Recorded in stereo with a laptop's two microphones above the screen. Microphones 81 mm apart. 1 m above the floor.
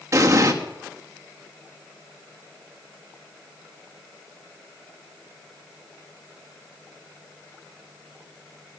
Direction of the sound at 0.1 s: 40° right (ahead or behind).